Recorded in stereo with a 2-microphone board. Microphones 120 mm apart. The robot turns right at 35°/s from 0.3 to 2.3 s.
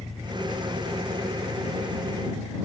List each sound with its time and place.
0.0 s an engine running: 165° left; by 2.7 s 125° right